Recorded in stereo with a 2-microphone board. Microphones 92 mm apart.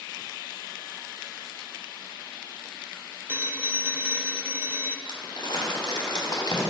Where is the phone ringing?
20° right (ahead or behind), 0.6 m.